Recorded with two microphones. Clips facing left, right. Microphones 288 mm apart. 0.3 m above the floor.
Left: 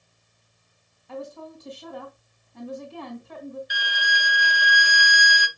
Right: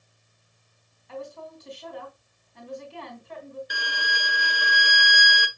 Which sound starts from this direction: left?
A woman speaking, at 1.1 s.